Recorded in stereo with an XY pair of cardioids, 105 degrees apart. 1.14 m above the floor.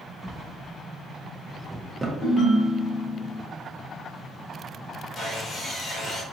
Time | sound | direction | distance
0.2 | a drawer | 15° right | 0.7 m
2.2 | a ringtone | 45° left | 1.7 m
5.2 | sawing | 40° left | 1.5 m